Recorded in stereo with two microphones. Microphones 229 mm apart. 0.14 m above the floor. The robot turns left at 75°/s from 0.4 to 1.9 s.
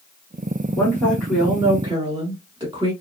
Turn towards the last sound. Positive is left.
turn(degrees=-20)  # may be behind; listen again after turning